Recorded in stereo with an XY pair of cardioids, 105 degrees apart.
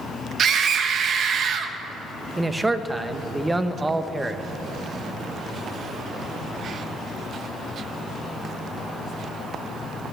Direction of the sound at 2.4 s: 15° right.